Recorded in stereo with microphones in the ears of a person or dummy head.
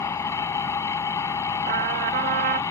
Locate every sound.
0.0 s an engine running: 20° left (ahead or behind)
1.7 s a trumpet: 40° right (ahead or behind)